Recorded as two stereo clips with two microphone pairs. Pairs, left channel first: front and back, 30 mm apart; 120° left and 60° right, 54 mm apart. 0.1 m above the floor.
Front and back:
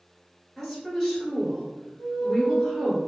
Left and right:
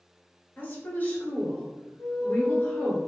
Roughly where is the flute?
Behind left.